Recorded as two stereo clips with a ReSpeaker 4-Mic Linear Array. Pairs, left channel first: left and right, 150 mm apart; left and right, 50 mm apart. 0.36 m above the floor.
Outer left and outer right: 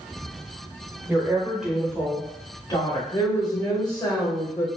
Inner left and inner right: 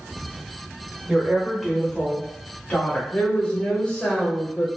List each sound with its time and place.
1.1 s a woman speaking: 15° right (ahead or behind), 1.1 m; by 3.0 s 30° left (ahead or behind), 1.1 m
3.1 s a woman speaking: 25° left (ahead or behind), 1.2 m